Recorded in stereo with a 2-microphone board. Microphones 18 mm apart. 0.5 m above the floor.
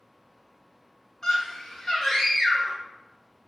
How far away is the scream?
About 0.9 m.